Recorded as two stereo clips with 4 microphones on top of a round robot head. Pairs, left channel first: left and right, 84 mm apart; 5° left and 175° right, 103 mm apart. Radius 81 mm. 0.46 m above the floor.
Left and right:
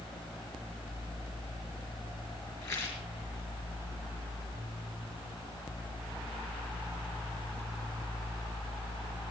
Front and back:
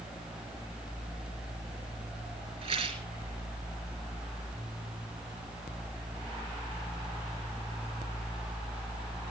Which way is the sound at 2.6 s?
165° left.